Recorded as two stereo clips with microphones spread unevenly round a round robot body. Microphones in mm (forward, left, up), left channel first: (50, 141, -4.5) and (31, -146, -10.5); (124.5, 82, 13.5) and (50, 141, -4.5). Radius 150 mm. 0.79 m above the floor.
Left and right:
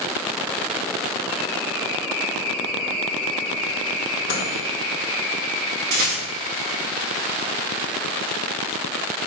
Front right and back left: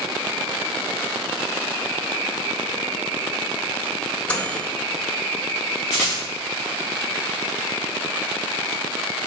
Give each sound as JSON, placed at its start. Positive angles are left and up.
{"t": 4.3, "sound": "a microwave", "azimuth_deg": 40, "distance_m": 2.5}
{"t": 5.9, "sound": "a rattle", "azimuth_deg": -145, "distance_m": 3.0}